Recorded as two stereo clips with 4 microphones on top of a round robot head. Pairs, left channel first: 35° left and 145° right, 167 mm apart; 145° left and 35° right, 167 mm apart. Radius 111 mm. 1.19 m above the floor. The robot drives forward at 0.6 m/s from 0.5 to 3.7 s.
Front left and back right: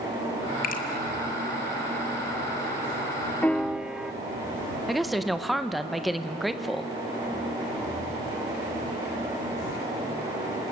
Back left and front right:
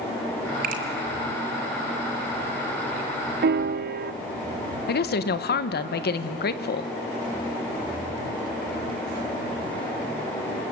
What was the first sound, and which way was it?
A finger snap, straight ahead.